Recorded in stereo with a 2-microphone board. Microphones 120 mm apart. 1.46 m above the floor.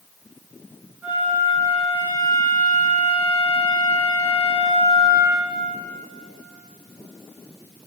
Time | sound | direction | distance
1.0 | a flute | 20° right (ahead or behind) | 3.5 m